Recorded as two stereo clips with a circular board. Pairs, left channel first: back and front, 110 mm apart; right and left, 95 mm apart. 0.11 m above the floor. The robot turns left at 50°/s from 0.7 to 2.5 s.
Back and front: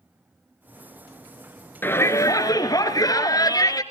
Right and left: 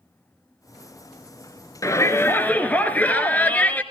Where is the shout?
120° right, 1.9 m; by 3.8 s 155° right, 1.9 m.